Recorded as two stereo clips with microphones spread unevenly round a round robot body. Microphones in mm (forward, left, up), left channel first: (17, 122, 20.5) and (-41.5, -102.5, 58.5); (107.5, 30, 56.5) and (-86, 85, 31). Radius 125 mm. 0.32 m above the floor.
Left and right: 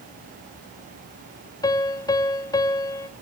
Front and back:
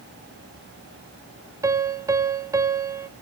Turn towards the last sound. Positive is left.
turn(degrees=115)